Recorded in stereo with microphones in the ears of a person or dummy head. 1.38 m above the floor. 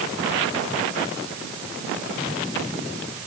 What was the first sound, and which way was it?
Only background noise.